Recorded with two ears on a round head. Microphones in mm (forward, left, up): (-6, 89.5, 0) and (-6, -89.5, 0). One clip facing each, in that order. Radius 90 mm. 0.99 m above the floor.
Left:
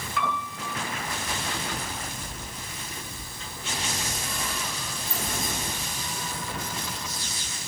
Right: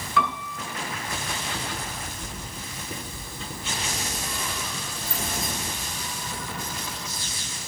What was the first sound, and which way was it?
A piano, 65° right (ahead or behind).